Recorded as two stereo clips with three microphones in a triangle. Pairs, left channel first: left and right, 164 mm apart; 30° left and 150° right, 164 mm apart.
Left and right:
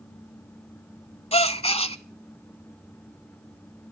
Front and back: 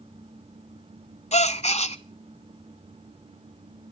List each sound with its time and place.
1.3 s a gasp: 55° left, 0.7 m